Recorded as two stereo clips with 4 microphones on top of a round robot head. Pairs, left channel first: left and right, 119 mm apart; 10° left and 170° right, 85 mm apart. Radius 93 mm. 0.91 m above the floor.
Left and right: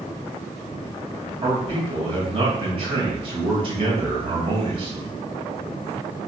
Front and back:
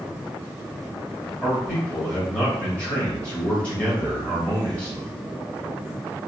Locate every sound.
1.4 s a man speaking: 65° right, 1.5 m